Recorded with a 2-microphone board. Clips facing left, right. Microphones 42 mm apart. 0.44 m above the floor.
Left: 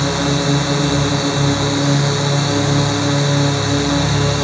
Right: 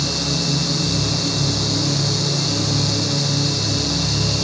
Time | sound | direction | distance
0.0 | a drone | 45° left (ahead or behind) | ?